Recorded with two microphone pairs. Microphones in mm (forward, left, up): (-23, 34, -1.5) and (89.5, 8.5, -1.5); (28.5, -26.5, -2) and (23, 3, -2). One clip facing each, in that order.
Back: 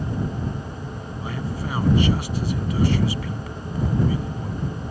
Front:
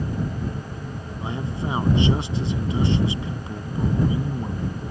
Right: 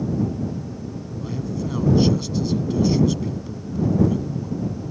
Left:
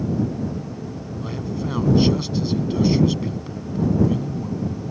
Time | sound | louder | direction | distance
1.2 | a man speaking | front 2 dB, even | 40° left | ?